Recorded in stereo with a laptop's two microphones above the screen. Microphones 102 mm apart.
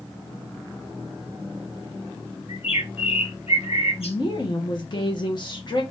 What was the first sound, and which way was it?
A bird, 80° left.